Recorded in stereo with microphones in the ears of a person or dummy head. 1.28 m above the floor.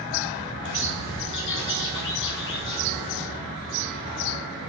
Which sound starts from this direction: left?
A bird, at 0.6 s.